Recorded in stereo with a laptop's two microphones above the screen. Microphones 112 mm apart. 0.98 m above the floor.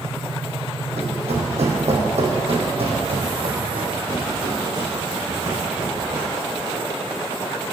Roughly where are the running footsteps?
Right.